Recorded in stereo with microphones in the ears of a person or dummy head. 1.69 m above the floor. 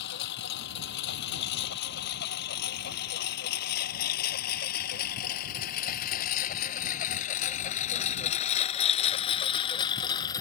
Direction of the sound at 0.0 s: 75° left (ahead or behind).